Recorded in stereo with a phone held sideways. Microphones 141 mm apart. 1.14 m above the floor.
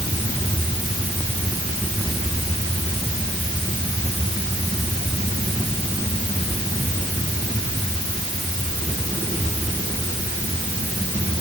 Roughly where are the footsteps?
I don't hear footsteps.